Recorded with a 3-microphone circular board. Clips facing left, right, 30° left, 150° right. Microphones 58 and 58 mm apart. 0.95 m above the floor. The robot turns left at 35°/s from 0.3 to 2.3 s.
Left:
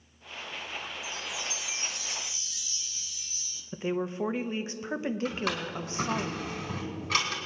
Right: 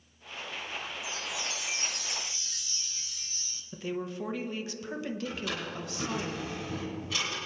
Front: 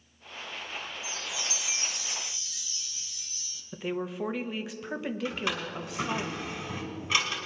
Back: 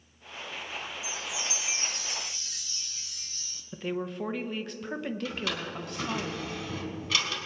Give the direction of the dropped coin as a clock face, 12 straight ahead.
No dropped coin in this recording.